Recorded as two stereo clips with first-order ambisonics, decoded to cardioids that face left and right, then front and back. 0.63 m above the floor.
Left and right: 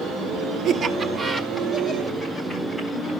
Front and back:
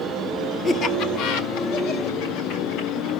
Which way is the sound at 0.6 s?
65° right.